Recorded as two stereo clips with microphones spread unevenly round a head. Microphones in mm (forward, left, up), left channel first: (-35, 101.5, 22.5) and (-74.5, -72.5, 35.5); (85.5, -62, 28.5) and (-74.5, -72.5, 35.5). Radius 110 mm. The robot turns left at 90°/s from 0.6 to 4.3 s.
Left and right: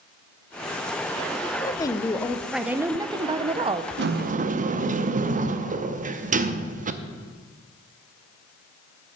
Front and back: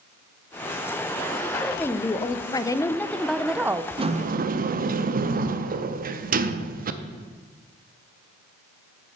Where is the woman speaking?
80° left, 0.6 m; by 3.9 s 130° right, 0.6 m.